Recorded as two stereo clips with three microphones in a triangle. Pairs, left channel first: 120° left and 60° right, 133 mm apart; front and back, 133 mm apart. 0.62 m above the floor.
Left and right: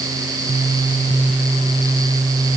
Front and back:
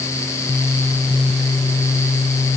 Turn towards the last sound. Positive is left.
No sound to turn to.